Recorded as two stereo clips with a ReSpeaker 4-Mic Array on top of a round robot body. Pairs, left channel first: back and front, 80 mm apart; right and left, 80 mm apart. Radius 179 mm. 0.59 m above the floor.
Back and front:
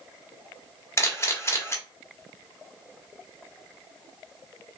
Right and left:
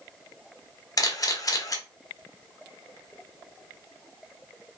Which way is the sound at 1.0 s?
130° right.